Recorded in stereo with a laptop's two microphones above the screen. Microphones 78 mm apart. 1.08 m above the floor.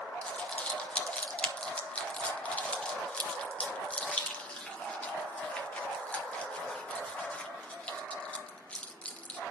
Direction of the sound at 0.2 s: 15° left (ahead or behind).